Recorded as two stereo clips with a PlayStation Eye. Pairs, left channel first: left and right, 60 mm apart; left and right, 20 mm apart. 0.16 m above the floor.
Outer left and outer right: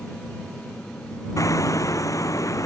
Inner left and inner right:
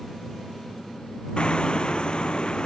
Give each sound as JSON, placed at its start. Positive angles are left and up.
{"t": 1.4, "sound": "hammering", "side_deg": 60}